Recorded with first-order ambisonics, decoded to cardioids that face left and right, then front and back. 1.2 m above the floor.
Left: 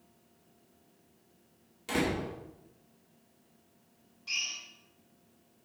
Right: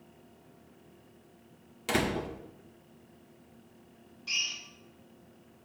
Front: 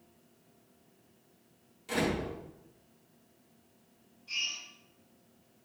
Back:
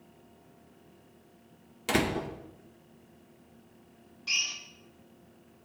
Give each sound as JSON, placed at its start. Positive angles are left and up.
{"t": 1.9, "sound": "a door slam", "azimuth_deg": -150, "distance_m": 1.7}
{"t": 4.3, "sound": "a drill", "azimuth_deg": -165, "distance_m": 1.4}